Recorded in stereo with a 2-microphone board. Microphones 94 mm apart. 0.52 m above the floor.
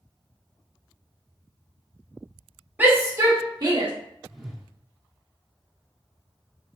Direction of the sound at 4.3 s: Centre (ahead or behind).